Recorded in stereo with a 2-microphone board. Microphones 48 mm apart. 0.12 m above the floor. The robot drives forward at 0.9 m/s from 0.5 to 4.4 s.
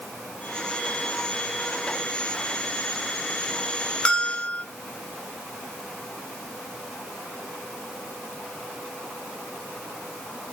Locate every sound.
4.0 s a bell: 25° left (ahead or behind), 1.2 m